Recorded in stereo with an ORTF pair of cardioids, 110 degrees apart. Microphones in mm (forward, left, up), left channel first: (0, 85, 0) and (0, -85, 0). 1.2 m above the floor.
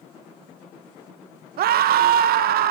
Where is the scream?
60° right, 0.8 m.